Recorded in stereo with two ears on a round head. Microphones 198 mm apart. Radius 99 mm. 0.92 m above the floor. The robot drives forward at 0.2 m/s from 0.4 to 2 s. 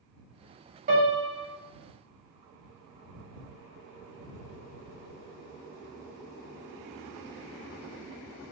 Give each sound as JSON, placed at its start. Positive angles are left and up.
{"t": 0.9, "sound": "a piano", "side_deg": -40, "distance_m": 1.1}